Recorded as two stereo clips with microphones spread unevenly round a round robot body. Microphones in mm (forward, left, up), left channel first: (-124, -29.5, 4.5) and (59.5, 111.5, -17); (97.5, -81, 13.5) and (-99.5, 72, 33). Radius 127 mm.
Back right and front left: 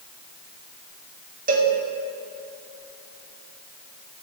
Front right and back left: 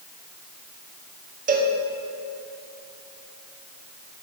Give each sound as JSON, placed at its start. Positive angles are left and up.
{"t": 1.5, "sound": "a cowbell", "azimuth_deg": 85, "distance_m": 1.8}